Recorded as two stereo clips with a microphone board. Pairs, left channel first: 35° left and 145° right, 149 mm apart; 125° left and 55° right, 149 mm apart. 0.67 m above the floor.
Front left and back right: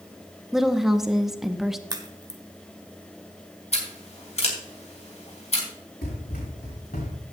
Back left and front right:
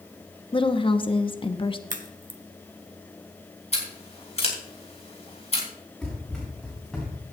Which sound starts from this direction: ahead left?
Running footsteps, at 6.0 s.